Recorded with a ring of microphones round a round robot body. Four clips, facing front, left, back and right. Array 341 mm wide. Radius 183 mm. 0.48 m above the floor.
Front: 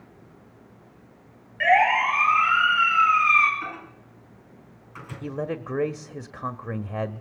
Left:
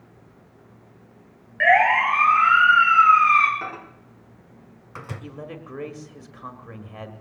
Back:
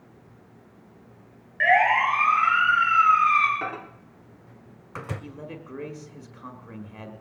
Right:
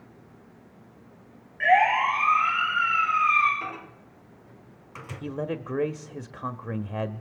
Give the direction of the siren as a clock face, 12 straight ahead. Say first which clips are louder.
Left 3 dB, front 1 dB; 9 o'clock.